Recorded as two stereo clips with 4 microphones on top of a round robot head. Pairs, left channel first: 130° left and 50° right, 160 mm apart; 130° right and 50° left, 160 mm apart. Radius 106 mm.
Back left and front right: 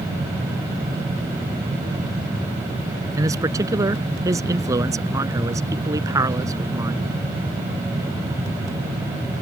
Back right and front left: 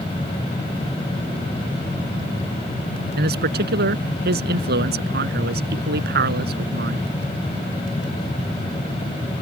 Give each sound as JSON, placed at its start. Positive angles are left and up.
{"t": 3.2, "sound": "a man speaking", "azimuth_deg": 20}